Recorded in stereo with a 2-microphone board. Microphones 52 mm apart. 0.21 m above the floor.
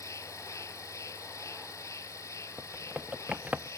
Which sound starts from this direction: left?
An insect, at 0.0 s.